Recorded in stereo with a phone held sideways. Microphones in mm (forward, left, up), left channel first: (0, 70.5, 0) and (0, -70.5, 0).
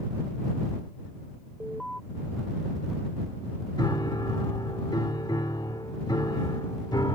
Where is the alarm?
5° left (ahead or behind).